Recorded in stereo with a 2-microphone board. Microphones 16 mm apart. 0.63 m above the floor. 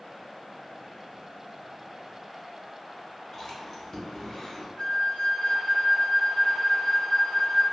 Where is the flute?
65° left (ahead or behind), 2.0 m.